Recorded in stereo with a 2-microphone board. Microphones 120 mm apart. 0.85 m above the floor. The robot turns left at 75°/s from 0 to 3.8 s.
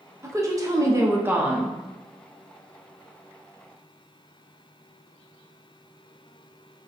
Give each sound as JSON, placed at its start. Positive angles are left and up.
{"t": 0.2, "sound": "a woman speaking", "side_deg": -20, "distance_m": 0.6}